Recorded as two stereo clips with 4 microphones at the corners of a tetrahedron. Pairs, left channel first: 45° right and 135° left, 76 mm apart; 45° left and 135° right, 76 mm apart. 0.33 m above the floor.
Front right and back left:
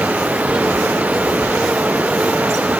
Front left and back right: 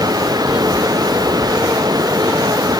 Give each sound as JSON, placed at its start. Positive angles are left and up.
{"t": 0.0, "sound": "running water", "azimuth_deg": -155}